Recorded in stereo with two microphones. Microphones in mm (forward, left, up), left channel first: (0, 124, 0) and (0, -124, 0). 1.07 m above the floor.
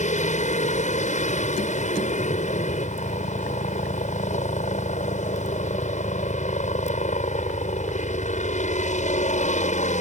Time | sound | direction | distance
0.0 | a helicopter | 30° left (ahead or behind) | ?